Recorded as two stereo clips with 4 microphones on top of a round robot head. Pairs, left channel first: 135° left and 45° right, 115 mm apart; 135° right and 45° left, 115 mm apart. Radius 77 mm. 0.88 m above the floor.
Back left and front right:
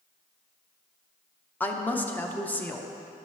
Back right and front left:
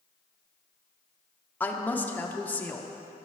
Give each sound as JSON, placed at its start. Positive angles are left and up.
{"t": 1.6, "sound": "a woman speaking", "azimuth_deg": 180, "distance_m": 0.8}